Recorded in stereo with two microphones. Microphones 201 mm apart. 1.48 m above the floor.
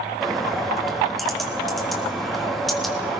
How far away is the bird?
About 3.5 m.